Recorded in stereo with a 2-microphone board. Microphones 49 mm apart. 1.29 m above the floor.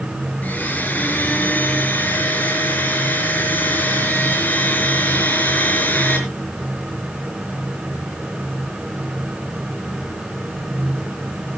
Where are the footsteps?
I don't hear footsteps.